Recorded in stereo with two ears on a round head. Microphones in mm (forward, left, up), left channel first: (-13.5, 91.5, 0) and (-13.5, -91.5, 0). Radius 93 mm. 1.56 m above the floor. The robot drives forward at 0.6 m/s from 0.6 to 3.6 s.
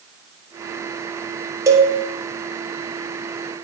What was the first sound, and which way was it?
A cowbell, 15° right (ahead or behind).